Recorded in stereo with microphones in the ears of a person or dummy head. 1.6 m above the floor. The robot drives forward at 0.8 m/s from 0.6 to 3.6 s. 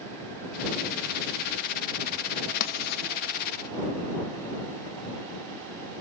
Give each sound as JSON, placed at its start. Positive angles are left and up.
{"t": 2.6, "sound": "writing", "side_deg": 55, "distance_m": 1.7}